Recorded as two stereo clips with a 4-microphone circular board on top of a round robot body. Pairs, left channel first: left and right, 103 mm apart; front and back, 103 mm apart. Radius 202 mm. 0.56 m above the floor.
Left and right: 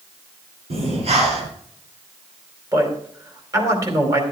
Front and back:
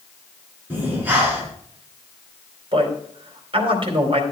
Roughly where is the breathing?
Right.